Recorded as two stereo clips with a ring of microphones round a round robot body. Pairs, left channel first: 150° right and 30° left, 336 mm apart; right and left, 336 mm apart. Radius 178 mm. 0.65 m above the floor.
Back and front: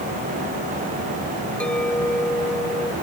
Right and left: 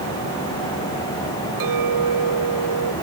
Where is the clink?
125° left.